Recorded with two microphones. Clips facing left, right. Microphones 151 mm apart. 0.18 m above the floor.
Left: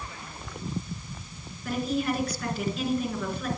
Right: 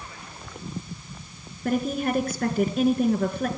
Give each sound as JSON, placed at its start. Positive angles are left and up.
{"t": 1.6, "sound": "a woman speaking", "side_deg": -50, "distance_m": 2.5}